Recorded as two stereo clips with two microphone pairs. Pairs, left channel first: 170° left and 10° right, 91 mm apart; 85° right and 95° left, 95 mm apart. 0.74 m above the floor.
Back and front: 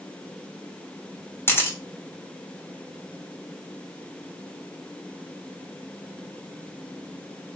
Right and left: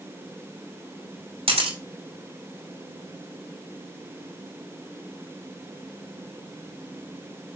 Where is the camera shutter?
105° left, 2.5 m.